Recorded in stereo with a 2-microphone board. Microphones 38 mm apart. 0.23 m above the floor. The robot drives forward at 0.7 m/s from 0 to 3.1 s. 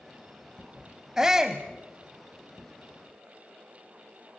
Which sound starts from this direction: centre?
A shout, at 1.2 s.